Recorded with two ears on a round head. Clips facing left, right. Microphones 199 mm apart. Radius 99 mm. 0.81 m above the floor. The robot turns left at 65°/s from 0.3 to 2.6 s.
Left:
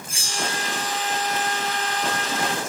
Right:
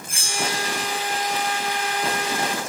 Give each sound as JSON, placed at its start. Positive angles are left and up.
{"t": 0.1, "sound": "a bell", "azimuth_deg": -55, "distance_m": 1.3}